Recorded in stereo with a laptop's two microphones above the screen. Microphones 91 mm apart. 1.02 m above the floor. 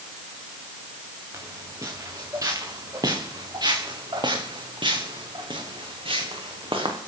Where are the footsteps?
35° right (ahead or behind), 5.5 m; by 7.0 s 75° right (ahead or behind), 4.5 m.